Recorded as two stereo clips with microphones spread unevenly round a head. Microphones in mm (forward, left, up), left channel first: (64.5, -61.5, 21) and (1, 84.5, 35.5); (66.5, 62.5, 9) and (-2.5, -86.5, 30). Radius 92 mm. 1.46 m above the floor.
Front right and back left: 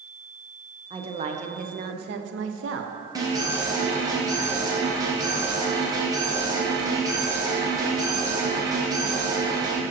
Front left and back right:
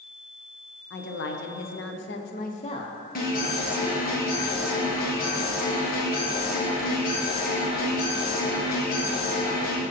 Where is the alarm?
45° left, 1.7 m.